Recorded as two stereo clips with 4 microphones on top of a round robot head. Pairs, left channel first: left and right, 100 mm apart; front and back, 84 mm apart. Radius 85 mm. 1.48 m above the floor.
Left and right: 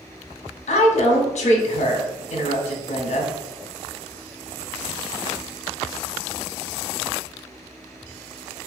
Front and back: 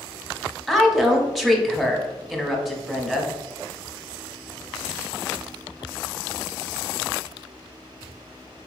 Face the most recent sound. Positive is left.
turn(degrees=90)